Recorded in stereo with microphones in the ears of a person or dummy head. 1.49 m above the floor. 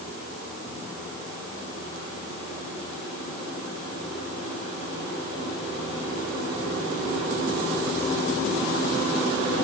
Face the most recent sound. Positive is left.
No sound to turn to.